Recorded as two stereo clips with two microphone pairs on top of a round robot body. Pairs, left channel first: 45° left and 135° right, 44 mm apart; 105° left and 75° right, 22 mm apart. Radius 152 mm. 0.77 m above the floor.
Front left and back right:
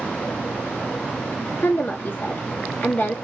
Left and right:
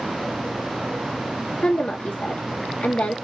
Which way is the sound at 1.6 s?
90° left.